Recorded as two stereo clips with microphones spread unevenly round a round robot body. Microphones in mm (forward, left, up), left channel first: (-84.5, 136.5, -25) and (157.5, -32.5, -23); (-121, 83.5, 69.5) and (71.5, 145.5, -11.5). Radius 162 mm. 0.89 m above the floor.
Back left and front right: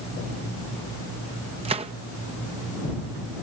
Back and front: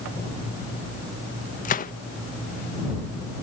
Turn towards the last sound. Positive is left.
turn(degrees=-95)